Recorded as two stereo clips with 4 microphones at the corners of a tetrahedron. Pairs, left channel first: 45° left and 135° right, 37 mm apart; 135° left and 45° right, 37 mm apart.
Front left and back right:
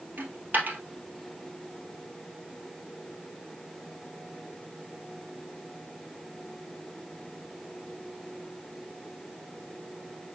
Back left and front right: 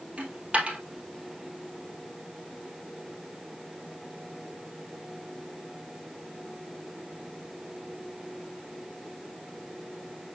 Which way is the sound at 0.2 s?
100° right.